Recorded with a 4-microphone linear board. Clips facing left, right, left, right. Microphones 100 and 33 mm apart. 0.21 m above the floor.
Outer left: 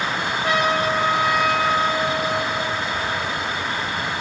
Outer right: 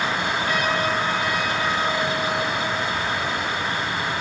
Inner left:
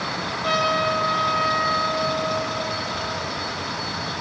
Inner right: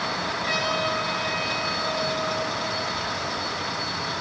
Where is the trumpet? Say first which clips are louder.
Outer left 5 dB, inner left 6 dB; 85° left, 5.5 m.